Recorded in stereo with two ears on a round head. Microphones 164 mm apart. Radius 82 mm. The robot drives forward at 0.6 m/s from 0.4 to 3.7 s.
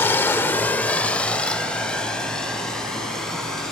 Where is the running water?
10° left (ahead or behind), 0.7 m; by 3.7 s 5° left (ahead or behind), 2.5 m.